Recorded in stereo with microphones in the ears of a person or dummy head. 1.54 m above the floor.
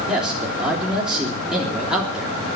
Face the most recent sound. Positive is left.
turn(degrees=0)  # may be behind; listen again after turning